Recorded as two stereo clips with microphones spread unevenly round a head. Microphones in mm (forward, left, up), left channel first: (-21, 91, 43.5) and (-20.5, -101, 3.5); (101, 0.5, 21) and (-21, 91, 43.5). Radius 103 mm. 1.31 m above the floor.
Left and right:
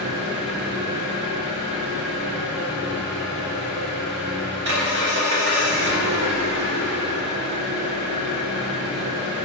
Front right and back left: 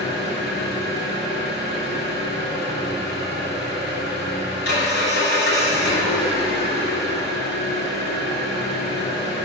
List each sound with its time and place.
0.0 s an engine running: 50° right, 3 m